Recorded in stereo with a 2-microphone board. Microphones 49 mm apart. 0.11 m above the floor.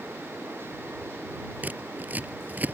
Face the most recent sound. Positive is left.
turn(degrees=-35)  # may be behind; listen again after turning